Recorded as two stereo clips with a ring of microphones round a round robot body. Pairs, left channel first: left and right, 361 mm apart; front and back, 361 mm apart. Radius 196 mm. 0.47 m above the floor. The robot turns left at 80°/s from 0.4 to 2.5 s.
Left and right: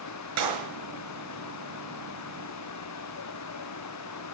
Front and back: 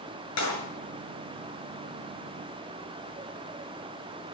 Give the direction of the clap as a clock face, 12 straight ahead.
2 o'clock.